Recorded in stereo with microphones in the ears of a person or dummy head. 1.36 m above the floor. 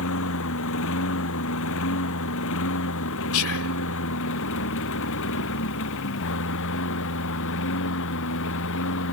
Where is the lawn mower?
65° left (ahead or behind).